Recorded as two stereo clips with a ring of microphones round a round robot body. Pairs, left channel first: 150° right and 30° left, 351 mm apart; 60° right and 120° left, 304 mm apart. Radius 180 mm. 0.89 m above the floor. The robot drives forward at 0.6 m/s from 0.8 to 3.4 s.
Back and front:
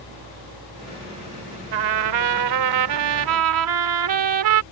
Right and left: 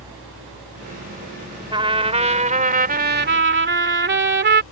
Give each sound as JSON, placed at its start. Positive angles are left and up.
{"t": 1.7, "sound": "a trumpet", "azimuth_deg": 45}